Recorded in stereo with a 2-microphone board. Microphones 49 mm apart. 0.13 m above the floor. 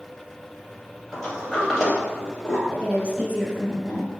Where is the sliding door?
Centre (ahead or behind), 1.6 m.